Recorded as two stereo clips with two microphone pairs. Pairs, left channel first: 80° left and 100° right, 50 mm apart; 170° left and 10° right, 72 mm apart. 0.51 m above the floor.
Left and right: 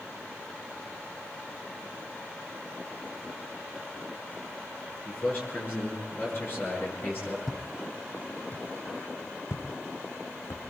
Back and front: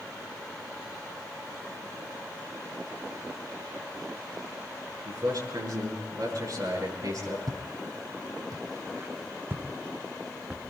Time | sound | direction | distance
5.0 | a man speaking | 35° left | 8.5 m
7.5 | footsteps | 15° right | 1.2 m